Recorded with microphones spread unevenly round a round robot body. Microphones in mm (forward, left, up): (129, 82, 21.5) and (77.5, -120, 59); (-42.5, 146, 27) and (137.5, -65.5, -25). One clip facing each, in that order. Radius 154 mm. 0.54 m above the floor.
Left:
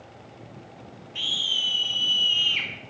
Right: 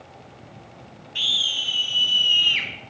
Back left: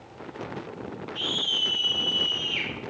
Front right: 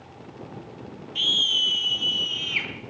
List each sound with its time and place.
1.1 s a scream: 55° right, 4.5 m; by 2.7 s 35° right, 5 m